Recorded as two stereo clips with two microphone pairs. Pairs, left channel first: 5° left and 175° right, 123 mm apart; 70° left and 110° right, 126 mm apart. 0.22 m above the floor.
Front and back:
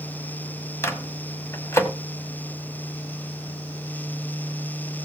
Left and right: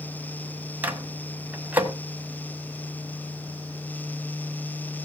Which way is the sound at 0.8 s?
45° right.